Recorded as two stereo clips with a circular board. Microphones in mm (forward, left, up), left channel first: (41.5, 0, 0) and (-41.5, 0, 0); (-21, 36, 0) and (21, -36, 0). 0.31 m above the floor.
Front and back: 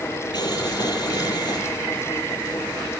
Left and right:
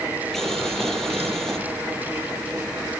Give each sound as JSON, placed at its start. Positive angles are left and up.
{"t": 0.3, "sound": "boiling", "azimuth_deg": 35, "distance_m": 5.5}